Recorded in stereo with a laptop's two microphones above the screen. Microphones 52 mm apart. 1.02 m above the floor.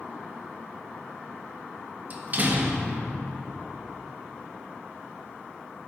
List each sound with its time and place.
2.1 s a door slam: 35° right (ahead or behind), 0.9 m